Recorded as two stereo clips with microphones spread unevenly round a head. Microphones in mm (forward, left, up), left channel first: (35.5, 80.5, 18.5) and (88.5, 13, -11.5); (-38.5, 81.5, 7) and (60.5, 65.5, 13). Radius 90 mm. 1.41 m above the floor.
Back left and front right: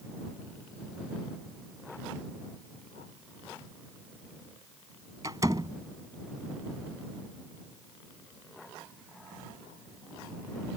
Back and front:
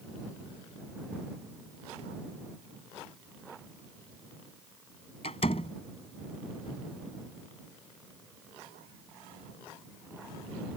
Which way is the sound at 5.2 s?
130° right.